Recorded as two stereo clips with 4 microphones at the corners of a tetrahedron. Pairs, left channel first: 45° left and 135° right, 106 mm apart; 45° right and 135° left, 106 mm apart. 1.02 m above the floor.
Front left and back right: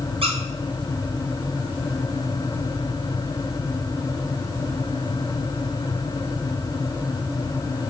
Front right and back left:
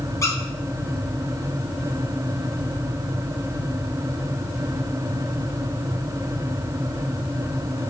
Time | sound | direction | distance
0.2 | a squeak | 105° right | 0.8 m